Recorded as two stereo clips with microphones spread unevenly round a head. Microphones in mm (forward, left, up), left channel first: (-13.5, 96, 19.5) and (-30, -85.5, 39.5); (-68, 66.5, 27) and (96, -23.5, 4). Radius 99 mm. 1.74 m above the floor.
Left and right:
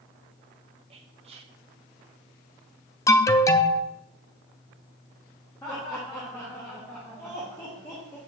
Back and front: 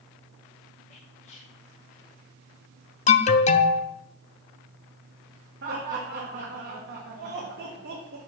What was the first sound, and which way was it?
Whispering, 150° right.